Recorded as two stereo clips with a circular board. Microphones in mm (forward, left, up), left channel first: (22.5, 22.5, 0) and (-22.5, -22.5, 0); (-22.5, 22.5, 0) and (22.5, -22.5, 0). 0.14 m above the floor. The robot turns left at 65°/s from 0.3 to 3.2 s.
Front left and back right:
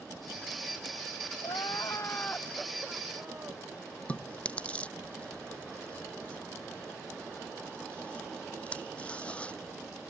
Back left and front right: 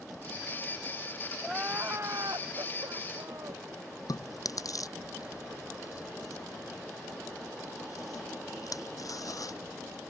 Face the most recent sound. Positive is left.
turn(degrees=115)